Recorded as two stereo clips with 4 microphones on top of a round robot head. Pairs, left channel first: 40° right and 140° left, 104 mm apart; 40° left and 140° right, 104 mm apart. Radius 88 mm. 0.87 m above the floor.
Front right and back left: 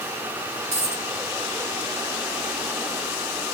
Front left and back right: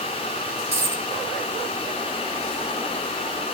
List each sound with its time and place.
0.7 s a dropped coin: 150° left, 1.4 m